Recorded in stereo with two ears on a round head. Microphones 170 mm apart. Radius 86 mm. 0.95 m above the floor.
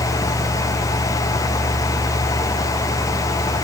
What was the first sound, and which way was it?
Only background noise.